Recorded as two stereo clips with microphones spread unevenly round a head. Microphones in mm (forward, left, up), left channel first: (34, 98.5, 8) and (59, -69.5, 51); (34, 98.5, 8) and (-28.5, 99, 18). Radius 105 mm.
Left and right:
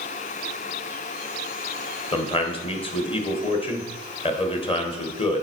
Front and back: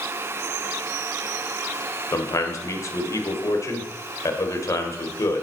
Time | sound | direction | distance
2.1 | a man speaking | 40° left | 1.6 m